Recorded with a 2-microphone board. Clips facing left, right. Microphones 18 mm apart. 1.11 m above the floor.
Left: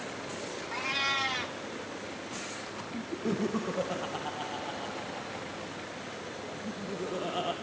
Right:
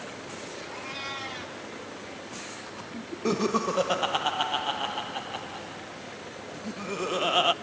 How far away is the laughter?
About 0.6 m.